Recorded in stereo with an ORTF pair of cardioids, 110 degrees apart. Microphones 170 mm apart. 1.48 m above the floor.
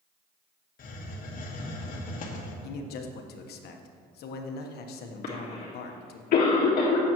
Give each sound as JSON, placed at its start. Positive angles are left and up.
{"t": 0.8, "sound": "a hiss", "azimuth_deg": 55, "distance_m": 1.6}
{"t": 2.6, "sound": "a man speaking", "azimuth_deg": 70, "distance_m": 1.2}
{"t": 5.2, "sound": "a cough", "azimuth_deg": 60, "distance_m": 1.6}